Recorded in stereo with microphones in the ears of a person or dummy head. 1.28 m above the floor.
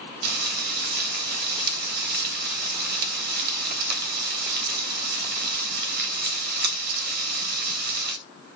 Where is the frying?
55° right (ahead or behind), 3 m.